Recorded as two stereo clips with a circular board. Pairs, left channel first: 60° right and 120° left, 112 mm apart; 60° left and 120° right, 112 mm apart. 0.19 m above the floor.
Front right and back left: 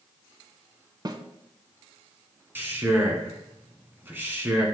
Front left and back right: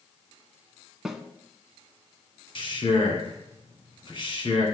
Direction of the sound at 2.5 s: 55° left.